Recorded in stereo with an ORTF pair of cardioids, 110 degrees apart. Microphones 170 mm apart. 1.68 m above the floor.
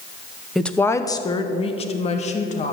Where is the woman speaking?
Straight ahead, 0.9 m; by 2.7 s 45° left, 2.5 m.